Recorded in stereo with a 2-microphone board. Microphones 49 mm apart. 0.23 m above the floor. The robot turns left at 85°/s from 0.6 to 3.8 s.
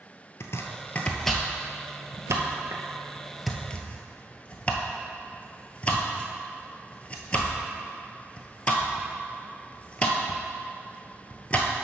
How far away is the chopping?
About 0.8 m.